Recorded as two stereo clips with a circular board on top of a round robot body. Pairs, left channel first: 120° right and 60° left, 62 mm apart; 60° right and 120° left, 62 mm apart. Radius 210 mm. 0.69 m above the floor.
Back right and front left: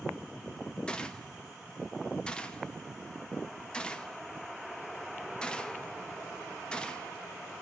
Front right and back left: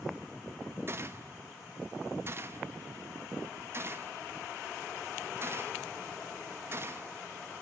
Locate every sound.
0.9 s a gunshot: 165° left, 0.9 m